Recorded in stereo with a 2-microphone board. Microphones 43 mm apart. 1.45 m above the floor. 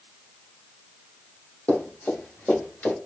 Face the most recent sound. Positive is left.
turn(degrees=30)  # may be behind; listen again after turning